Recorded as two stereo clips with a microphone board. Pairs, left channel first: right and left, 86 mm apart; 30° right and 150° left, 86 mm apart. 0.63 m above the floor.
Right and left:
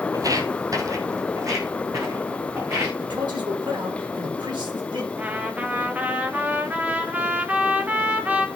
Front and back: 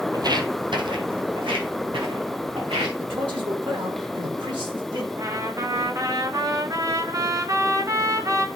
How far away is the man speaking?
About 6 m.